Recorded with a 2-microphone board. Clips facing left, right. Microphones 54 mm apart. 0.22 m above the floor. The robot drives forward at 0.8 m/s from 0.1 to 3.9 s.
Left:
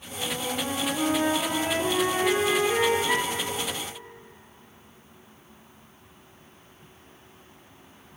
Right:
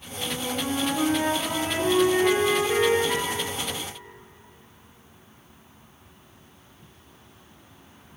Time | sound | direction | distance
0.2 | a flute | 20° right (ahead or behind) | 3 m
3.1 | a flute | 60° left (ahead or behind) | 4.5 m